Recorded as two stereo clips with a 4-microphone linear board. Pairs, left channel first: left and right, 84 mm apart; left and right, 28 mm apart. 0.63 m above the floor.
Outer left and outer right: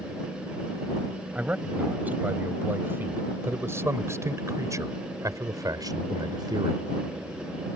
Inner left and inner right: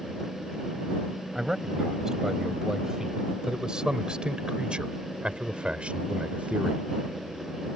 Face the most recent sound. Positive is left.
turn(degrees=-60)  # may be behind; listen again after turning